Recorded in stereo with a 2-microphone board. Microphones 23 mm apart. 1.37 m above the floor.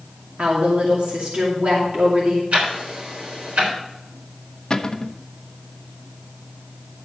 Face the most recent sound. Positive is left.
turn(degrees=35)  # may be behind; listen again after turning